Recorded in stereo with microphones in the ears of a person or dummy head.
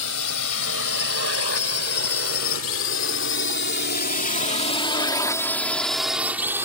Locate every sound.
0.0 s a drone: 85° left; by 6.7 s 15° right (ahead or behind)